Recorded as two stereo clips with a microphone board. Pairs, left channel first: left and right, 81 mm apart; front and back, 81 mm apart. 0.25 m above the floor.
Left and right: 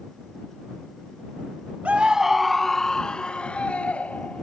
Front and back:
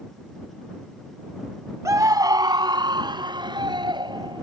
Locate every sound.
1.9 s a scream: 155° right; by 4.4 s 160° left